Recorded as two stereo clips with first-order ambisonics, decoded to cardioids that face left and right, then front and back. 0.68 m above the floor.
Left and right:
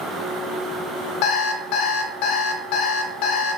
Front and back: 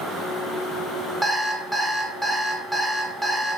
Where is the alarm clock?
100° left, 0.7 m.